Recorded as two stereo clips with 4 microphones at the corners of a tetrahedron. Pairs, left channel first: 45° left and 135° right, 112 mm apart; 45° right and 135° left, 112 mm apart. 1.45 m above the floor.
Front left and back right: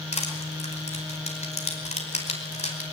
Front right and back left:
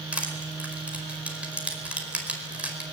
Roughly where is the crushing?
Ahead left.